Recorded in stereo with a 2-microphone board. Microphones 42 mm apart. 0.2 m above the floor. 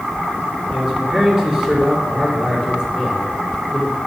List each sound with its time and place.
0.7 s a man speaking: 15° right (ahead or behind), 2.5 m